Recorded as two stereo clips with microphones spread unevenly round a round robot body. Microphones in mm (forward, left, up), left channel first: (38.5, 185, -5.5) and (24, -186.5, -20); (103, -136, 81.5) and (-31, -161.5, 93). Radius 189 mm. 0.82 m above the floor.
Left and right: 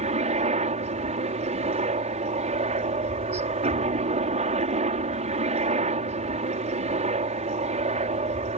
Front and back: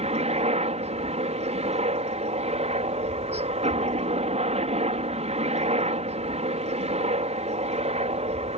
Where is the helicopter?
160° right.